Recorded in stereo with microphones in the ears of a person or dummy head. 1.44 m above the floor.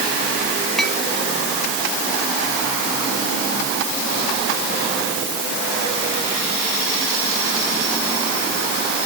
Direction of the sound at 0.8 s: 5° left (ahead or behind).